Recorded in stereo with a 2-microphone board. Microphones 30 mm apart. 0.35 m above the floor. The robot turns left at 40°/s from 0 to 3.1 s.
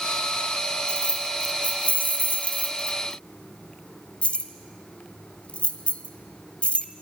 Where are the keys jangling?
35° left (ahead or behind), 1.2 m; by 6.9 s 45° left (ahead or behind), 1.2 m.